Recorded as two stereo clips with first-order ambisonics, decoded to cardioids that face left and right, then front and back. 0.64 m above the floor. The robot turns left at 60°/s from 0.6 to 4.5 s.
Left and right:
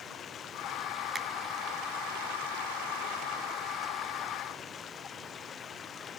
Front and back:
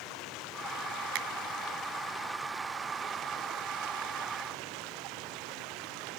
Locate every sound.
0.0 s running water: 30° left; by 6.2 s 155° left
1.1 s a finger snap: 160° right; by 1.3 s 170° right